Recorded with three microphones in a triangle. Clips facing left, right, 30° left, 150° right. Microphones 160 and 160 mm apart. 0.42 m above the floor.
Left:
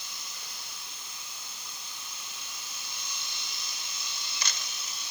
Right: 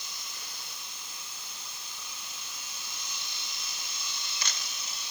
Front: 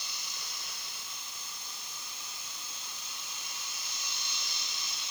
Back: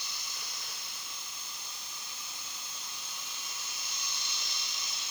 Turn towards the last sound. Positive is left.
No sound to turn to.